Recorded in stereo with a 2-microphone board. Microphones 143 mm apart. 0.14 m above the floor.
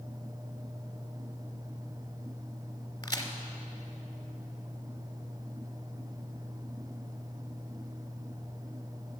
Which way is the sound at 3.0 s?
25° left (ahead or behind).